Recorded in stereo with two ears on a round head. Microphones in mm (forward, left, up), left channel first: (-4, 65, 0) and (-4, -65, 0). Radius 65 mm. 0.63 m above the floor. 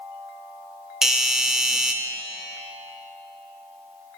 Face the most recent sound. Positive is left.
turn(degrees=-5)  # may be behind; listen again after turning